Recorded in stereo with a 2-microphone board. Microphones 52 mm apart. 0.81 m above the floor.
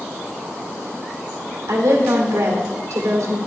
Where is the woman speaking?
75° right (ahead or behind), 1.8 m.